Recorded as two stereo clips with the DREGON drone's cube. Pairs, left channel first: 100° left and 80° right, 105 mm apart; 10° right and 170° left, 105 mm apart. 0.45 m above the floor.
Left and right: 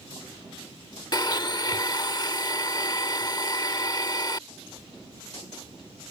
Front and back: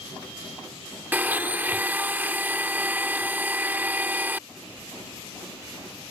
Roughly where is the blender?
Left.